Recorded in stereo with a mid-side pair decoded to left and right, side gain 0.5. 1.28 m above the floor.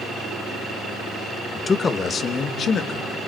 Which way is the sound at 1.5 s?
25° left.